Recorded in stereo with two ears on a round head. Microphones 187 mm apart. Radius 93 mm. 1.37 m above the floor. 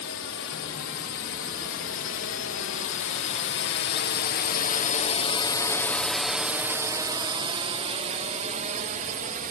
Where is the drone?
70° left (ahead or behind); by 9.5 s 40° right (ahead or behind).